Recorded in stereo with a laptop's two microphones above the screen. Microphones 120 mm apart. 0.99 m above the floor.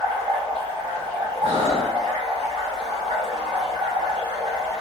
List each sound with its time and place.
0.0 s running water: 40° right (ahead or behind), 1.4 m
1.4 s breathing: 65° right (ahead or behind), 1.9 m